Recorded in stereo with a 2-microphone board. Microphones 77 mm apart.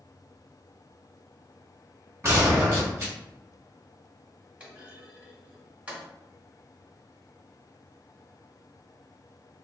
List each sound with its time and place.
2.2 s a gunshot: 30° right (ahead or behind), 1.0 m
4.6 s a clunk: 15° right (ahead or behind), 1.3 m